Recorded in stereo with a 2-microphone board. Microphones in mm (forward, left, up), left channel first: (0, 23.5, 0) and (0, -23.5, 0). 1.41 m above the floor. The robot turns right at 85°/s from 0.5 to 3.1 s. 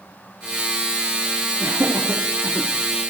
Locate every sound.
1.6 s laughter: 65° right (ahead or behind), 3 m; by 2.7 s 20° right (ahead or behind), 3 m